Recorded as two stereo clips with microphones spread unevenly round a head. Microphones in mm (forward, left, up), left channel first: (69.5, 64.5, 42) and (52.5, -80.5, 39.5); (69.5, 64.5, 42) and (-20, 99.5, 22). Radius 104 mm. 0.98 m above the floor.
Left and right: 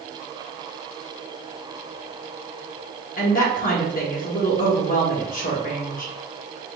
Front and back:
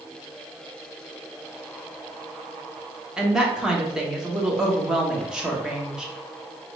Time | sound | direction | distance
3.2 | a woman speaking | 85° left | 1.4 m